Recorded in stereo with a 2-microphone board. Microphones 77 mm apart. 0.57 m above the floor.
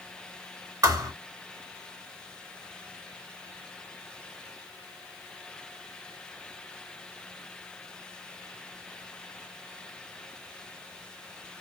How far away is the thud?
About 0.8 m.